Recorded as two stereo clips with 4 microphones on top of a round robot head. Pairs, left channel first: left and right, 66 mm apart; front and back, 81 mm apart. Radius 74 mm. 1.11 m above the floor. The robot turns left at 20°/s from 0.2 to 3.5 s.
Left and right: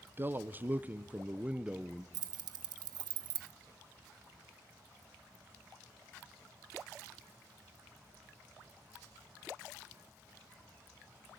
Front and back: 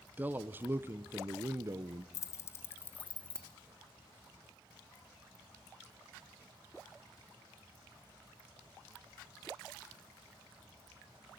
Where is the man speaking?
125° right, 0.8 m; by 2.0 s 165° right, 0.8 m.